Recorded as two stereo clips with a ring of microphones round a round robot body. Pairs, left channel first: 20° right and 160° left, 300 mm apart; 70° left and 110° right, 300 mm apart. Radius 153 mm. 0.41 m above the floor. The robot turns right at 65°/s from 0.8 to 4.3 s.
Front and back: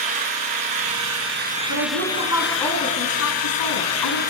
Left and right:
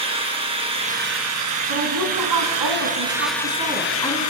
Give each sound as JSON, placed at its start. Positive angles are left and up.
{"t": 0.0, "sound": "an engine running", "azimuth_deg": 175, "distance_m": 3.5}
{"t": 1.7, "sound": "a woman speaking", "azimuth_deg": -165, "distance_m": 5.0}